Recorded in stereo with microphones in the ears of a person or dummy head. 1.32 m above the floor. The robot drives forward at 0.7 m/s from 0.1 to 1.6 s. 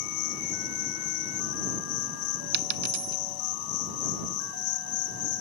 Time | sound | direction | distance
0.0 | an insect | 85° left | ?
2.5 | a dropped coin | 60° right (ahead or behind) | ?